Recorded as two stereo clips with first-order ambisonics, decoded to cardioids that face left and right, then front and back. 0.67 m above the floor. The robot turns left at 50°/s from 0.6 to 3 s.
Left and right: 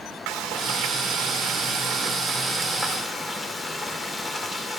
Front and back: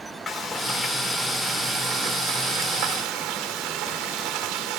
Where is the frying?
65° right, 2 m; by 4.8 s 175° left, 2 m.